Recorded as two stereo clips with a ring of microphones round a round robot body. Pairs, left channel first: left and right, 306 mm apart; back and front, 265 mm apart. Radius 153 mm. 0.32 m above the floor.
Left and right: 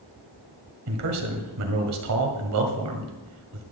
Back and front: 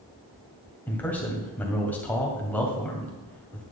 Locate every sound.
0.9 s a man speaking: 95° right, 2 m